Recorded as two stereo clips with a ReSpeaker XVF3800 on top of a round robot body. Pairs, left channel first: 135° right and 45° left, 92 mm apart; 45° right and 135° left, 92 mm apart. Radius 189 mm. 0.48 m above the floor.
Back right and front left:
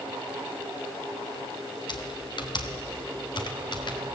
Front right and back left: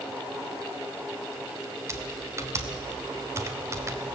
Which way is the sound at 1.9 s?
165° right.